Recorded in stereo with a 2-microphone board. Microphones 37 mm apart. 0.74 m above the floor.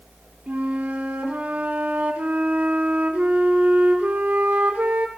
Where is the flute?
60° right (ahead or behind), 2 m.